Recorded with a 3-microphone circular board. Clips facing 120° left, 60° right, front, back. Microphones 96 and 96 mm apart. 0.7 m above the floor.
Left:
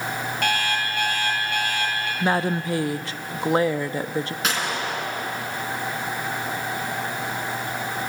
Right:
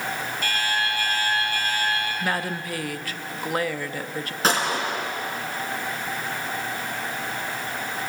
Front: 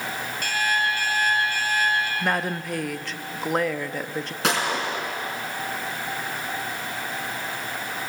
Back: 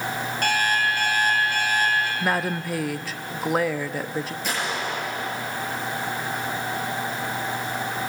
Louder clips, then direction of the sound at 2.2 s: Left 5 dB, back 1 dB; 100° left.